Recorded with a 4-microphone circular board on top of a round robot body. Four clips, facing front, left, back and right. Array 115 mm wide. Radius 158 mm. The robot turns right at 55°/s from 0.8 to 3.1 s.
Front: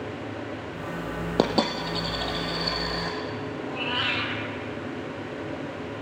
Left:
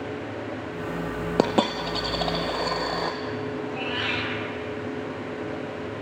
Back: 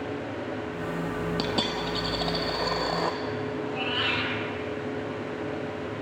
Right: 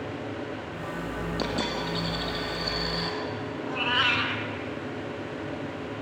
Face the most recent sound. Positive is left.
turn(degrees=-85)